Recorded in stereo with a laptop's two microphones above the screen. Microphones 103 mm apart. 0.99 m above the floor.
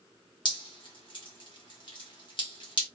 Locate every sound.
0.5 s dripping: 50° left (ahead or behind), 0.9 m